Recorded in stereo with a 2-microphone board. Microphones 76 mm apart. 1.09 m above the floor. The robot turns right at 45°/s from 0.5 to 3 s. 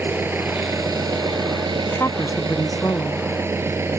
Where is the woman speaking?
40° left; by 3.3 s 95° left.